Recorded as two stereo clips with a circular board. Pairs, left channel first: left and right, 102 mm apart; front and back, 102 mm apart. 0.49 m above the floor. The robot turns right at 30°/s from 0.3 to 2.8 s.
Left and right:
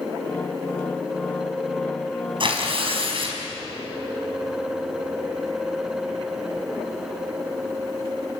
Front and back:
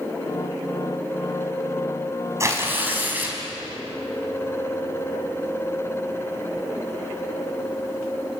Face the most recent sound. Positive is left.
turn(degrees=-110)